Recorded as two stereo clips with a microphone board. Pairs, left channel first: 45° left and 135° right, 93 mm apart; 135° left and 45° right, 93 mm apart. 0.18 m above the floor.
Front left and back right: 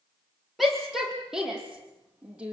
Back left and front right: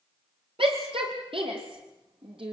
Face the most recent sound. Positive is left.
turn(degrees=-60)